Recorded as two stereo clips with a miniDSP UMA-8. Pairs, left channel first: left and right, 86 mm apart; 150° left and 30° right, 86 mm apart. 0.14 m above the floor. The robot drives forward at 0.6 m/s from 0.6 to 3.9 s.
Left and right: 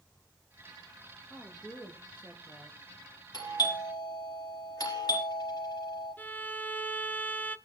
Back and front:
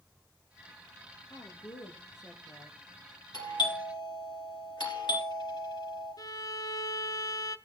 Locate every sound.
1.3 s a woman speaking: 160° left, 4 m; by 2.8 s 165° left, 4.5 m
3.3 s a doorbell: 125° left, 5 m
6.2 s a violin: 150° left, 0.7 m